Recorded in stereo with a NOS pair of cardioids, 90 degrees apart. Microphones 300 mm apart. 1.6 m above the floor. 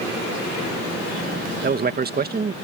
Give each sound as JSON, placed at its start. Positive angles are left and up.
{"t": 1.6, "sound": "a man speaking", "azimuth_deg": -30}